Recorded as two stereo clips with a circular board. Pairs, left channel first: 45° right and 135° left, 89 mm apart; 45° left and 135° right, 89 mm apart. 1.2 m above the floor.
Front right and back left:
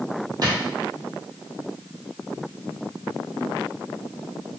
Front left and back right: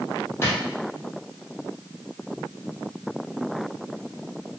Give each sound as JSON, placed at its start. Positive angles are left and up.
{"t": 0.4, "sound": "a drawer", "azimuth_deg": 105, "distance_m": 1.0}